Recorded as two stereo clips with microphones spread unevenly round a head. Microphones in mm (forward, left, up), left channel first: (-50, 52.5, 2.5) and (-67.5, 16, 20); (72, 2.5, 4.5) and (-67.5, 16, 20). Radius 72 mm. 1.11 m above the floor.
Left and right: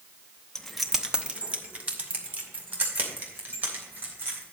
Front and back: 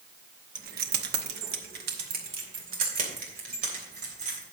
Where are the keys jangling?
150° left, 0.8 m; by 4.4 s 145° right, 4 m.